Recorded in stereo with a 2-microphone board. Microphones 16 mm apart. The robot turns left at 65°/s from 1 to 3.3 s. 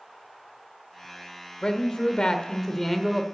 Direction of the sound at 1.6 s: 105° left.